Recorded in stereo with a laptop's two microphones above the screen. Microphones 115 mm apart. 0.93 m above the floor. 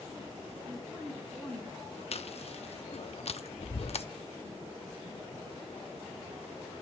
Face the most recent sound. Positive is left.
turn(degrees=60)  # may be behind; listen again after turning